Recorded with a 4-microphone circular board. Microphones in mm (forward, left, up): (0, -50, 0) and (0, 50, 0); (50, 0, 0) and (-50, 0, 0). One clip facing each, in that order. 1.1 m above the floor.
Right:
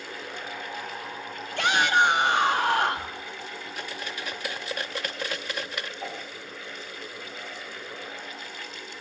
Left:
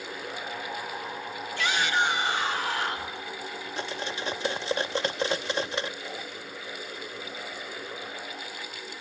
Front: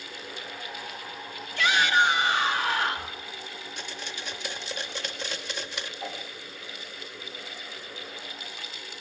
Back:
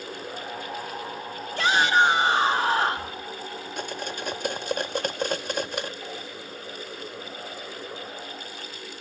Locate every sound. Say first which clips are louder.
1.6 s a shout: right 5 dB, back 3 dB; 125° right, 1.5 m
3.8 s cutlery clinking: left 4 dB, back 8 dB; 145° left, 0.7 m
6.0 s a whoosh: right 2 dB, even; 60° right, 7 m